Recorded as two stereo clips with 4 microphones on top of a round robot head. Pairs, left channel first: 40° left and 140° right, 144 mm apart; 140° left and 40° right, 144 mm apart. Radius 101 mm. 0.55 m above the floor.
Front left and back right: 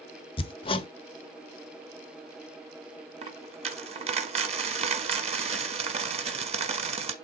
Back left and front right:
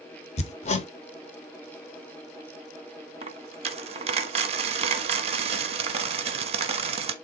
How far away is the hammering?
About 0.9 m.